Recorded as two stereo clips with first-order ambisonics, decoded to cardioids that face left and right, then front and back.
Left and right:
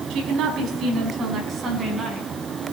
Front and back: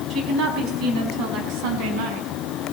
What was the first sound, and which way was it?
A woman speaking, 130° right.